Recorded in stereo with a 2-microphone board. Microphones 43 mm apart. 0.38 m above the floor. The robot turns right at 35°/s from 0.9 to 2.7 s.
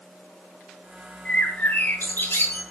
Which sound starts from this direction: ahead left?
A bird, at 1.2 s.